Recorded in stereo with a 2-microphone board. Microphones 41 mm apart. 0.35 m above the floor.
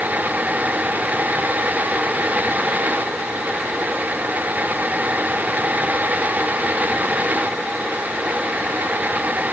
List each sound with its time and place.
Only background noise.